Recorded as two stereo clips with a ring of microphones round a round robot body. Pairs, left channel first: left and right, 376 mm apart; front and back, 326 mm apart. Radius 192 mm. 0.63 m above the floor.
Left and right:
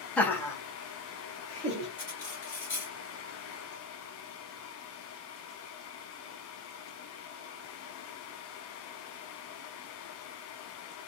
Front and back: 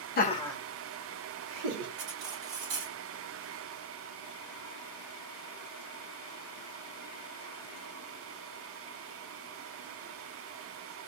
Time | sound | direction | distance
0.2 | laughter | 5° left | 1.0 m
2.0 | cutlery clinking | 175° left | 1.8 m